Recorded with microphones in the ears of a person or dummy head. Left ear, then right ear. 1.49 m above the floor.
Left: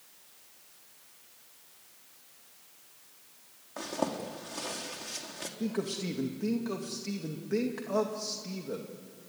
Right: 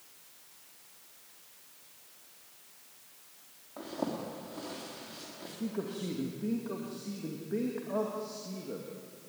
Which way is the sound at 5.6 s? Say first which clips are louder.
Left 3 dB; 80° left.